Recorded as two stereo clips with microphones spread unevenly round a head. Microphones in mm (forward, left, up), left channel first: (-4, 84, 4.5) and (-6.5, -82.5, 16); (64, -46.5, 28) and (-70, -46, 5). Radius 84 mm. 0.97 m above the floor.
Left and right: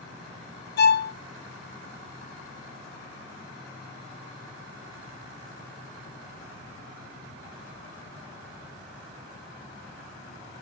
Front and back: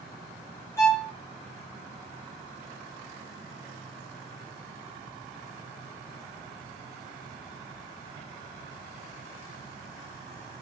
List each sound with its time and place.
0.8 s a violin: 75° left, 0.8 m